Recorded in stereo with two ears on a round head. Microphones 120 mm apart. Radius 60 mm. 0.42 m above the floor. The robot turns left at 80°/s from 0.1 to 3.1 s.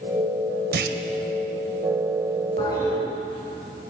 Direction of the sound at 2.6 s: 40° left.